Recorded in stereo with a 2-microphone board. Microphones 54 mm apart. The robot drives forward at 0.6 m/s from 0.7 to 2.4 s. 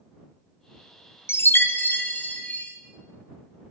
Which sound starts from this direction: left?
A chime, at 1.3 s.